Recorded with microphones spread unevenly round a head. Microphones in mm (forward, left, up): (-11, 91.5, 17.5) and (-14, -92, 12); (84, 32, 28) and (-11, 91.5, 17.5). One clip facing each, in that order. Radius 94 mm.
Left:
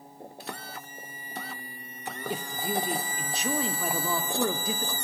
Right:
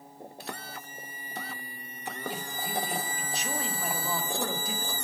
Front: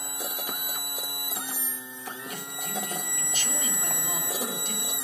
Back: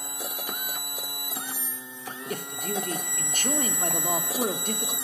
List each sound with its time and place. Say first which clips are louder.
2.3 s a man speaking: left 6 dB, back 7 dB; 105° left, 2.5 m